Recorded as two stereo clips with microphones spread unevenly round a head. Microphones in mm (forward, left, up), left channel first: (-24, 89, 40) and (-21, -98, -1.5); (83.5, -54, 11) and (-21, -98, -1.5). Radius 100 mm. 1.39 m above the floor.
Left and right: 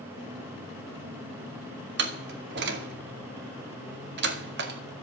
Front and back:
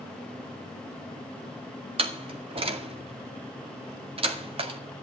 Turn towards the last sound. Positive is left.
turn(degrees=-120)